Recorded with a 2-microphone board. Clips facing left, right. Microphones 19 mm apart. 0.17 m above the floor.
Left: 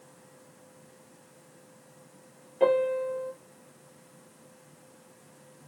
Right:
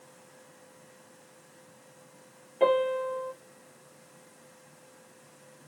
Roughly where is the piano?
Centre.